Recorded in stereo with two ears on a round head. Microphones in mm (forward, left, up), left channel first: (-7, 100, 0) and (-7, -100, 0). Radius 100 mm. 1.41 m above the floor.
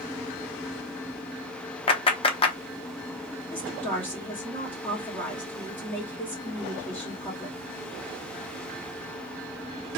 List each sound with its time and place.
1.9 s a clap: 25° left (ahead or behind), 0.9 m
3.5 s a woman speaking: 10° left (ahead or behind), 2.5 m